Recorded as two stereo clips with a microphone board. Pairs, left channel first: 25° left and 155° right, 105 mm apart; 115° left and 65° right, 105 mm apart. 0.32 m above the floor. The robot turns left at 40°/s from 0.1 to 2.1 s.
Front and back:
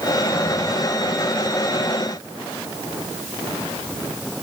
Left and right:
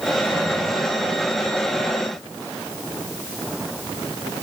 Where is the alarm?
I don't hear an alarm.